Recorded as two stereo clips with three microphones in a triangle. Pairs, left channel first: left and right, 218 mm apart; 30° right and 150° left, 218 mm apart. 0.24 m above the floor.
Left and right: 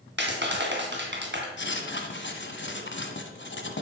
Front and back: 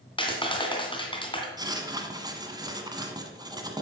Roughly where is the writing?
Left.